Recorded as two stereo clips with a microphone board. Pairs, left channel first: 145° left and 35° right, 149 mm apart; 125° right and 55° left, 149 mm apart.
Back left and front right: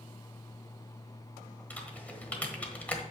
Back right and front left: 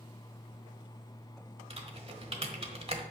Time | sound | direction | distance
1.7 | typing on a keyboard | 70° left | 1.3 m